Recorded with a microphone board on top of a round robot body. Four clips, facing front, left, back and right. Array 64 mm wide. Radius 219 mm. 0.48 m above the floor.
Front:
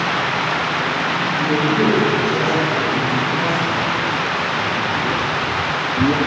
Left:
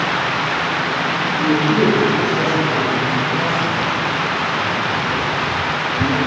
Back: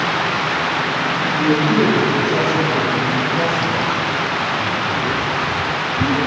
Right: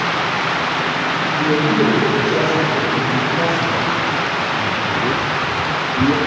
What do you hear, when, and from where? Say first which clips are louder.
1.4 s a man speaking: even, back 3 dB; 150° right, 4.5 m; by 6.2 s 30° right, 1.5 m